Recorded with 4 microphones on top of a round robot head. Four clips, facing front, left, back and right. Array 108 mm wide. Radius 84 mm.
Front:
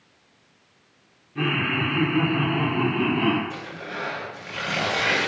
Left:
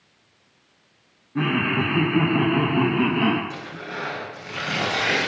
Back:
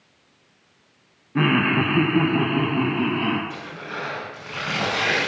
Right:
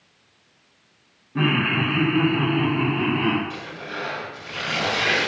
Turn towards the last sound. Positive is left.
turn(degrees=155)